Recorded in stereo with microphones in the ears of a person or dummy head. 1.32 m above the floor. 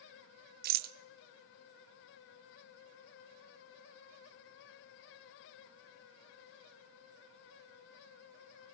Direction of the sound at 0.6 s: 45° right (ahead or behind).